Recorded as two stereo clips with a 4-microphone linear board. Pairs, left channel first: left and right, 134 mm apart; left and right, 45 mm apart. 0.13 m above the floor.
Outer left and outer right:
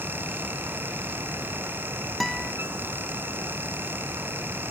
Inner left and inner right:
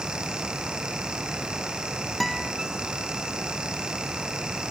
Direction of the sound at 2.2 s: Centre (ahead or behind).